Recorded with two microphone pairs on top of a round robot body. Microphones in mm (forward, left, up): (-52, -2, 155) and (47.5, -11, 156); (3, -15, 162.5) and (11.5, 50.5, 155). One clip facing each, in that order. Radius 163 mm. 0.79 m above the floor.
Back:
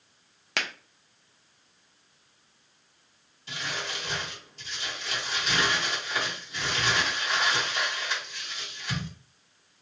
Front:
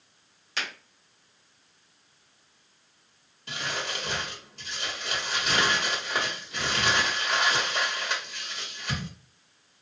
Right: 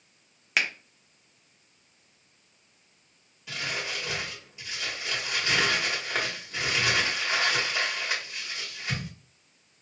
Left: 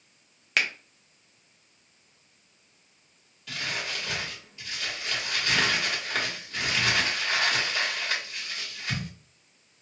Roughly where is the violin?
I don't hear a violin.